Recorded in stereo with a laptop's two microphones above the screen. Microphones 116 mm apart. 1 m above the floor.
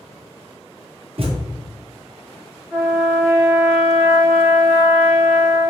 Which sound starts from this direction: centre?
A trumpet, at 2.7 s.